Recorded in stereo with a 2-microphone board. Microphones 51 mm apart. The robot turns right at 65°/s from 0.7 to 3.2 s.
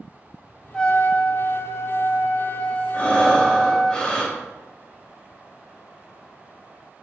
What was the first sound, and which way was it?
A trumpet, 10° left.